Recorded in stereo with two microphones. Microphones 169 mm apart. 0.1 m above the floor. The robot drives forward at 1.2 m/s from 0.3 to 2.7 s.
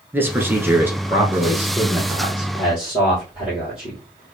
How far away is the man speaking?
About 1.2 m.